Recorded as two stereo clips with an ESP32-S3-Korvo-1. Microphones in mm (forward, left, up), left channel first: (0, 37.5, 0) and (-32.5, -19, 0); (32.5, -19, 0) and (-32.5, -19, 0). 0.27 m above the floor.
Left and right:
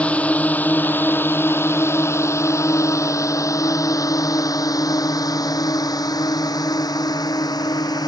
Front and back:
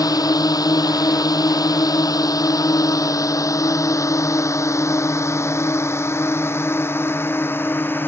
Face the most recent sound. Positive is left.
turn(degrees=55)